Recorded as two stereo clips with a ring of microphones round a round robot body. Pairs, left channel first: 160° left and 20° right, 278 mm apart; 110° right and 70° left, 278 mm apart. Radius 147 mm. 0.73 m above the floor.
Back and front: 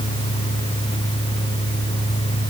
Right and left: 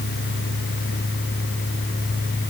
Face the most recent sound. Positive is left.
No sound to turn to.